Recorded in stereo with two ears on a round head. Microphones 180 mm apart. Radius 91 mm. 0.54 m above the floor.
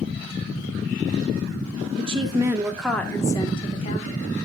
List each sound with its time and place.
2.0 s a woman speaking: 30° right (ahead or behind), 0.8 m; by 4.3 s 40° left (ahead or behind), 1.2 m